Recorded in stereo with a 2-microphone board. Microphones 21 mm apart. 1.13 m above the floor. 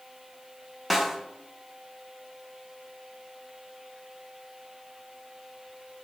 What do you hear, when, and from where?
0.9 s a snare drum: centre (ahead or behind), 0.6 m